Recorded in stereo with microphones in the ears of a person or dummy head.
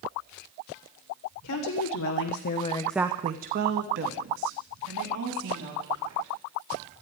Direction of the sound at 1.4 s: 80° left.